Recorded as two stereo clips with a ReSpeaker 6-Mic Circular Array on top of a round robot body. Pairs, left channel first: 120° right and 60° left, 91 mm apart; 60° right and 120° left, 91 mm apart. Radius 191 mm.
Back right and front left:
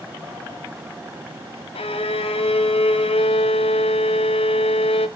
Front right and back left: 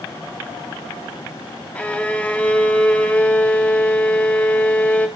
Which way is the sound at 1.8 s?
135° right.